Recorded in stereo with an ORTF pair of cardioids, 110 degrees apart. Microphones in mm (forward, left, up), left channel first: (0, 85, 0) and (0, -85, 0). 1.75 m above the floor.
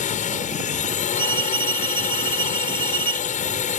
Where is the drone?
45° left.